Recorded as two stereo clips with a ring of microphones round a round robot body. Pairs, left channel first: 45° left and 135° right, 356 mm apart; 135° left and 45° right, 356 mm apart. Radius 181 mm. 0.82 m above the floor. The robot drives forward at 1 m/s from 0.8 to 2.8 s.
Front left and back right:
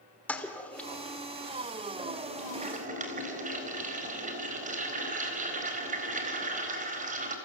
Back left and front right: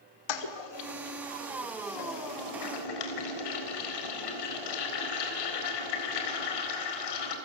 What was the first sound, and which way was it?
A toilet flushing, 130° left.